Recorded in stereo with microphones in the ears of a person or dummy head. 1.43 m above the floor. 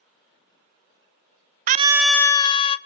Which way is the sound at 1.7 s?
40° right (ahead or behind).